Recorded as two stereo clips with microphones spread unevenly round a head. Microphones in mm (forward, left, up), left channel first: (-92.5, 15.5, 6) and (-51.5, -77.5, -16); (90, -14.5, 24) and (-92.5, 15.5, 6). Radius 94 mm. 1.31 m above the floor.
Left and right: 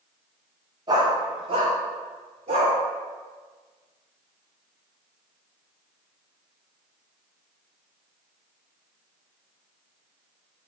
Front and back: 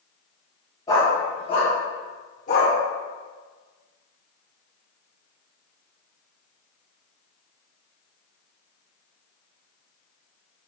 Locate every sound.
0.9 s a dog barking: 45° right, 0.8 m; by 2.7 s 50° right, 1.5 m